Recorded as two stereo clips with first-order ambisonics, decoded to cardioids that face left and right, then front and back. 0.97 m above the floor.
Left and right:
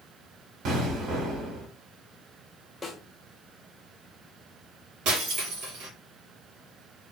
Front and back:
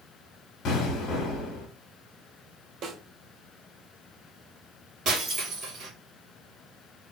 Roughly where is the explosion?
Ahead right.